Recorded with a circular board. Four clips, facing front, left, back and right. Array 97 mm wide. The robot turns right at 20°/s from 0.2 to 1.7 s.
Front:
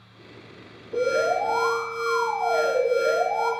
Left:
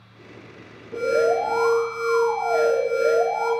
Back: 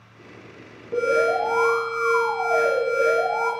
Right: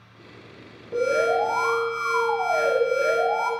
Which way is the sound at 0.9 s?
170° right.